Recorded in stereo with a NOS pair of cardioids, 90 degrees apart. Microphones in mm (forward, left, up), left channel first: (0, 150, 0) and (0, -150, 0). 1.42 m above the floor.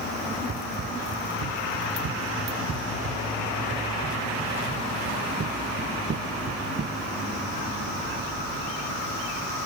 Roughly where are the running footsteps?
Ahead right.